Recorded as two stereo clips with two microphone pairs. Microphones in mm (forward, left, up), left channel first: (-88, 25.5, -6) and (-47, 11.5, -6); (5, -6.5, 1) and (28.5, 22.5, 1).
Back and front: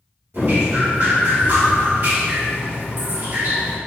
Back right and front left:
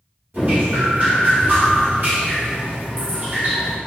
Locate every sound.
0.3 s dripping: 10° left, 1.4 m